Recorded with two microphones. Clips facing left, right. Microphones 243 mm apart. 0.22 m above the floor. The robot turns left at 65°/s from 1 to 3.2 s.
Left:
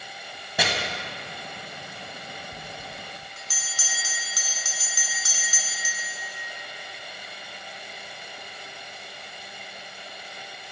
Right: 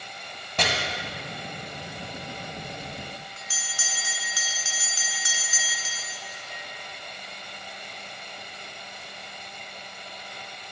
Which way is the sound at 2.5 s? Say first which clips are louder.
Right 3 dB; 95° left.